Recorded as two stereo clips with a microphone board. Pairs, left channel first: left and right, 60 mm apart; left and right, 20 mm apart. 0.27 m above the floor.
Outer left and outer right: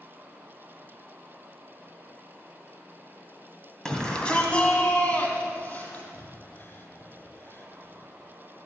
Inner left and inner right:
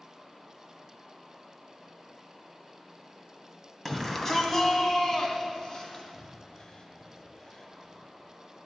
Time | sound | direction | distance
3.9 | a shout | 10° left (ahead or behind) | 2.5 m
6.1 | breathing | 40° left (ahead or behind) | 1.5 m